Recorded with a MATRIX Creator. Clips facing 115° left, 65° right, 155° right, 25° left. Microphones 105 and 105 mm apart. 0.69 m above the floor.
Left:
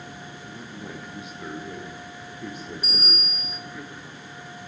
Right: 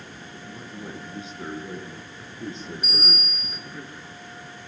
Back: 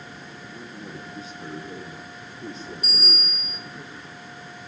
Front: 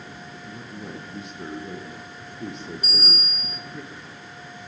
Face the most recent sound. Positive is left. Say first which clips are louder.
# right 3 dB, back 1 dB
turn(degrees=60)